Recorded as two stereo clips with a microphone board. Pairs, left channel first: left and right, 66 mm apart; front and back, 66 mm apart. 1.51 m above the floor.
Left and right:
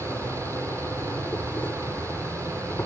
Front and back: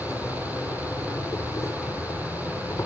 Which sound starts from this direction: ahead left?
An insect, at 0.0 s.